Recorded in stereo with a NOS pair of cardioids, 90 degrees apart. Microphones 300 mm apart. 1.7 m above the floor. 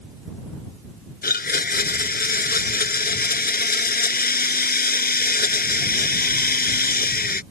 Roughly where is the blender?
Ahead left.